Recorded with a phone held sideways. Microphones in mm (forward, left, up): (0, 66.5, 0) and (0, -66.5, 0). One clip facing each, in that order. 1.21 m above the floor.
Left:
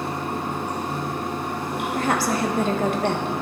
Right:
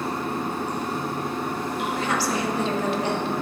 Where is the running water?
65° left (ahead or behind), 3.5 m.